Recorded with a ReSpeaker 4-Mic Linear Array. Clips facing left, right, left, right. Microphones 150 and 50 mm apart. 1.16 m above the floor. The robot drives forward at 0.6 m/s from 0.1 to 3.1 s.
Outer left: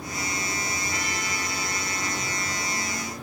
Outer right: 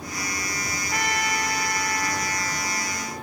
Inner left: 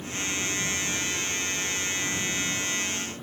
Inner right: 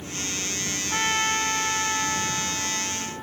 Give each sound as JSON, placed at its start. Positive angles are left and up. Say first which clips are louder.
{"t": 0.9, "sound": "a trumpet", "louder": "outer right 5 dB, inner right 7 dB", "side_deg": -60}